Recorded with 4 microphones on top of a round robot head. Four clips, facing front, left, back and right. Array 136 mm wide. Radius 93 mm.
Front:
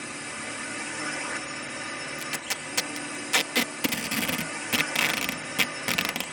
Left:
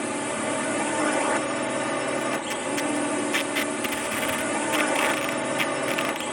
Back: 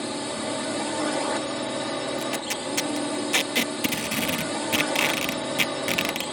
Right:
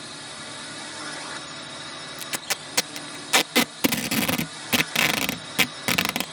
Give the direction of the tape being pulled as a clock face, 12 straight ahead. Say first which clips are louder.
Left 8 dB, back 7 dB; 3 o'clock.